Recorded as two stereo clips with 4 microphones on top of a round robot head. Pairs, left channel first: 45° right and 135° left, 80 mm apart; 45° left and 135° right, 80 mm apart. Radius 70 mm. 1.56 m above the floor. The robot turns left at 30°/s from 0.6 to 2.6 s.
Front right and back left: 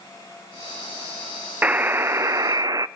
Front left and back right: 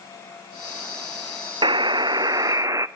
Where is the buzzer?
155° right, 0.6 m; by 2.9 s 175° left, 0.6 m.